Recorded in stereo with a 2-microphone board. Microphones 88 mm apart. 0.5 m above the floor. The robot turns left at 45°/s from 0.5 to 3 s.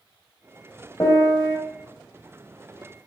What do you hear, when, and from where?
1.0 s a piano: 40° left (ahead or behind), 1.1 m; by 1.6 s 15° left (ahead or behind), 1.1 m